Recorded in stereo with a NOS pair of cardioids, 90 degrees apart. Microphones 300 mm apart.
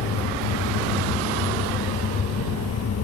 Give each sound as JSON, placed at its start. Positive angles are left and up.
{"t": 0.0, "sound": "a fan", "azimuth_deg": 55}